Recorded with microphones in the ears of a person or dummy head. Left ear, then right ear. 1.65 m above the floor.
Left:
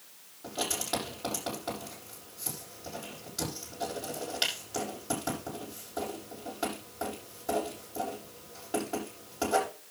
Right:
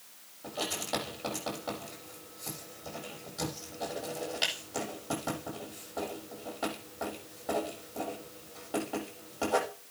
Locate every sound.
0.4 s writing: centre (ahead or behind), 10 m